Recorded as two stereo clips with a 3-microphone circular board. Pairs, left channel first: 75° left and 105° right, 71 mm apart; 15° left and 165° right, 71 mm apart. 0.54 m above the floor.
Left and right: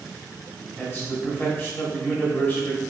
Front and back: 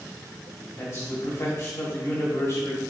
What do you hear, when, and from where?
0.8 s a man speaking: 30° left, 1.2 m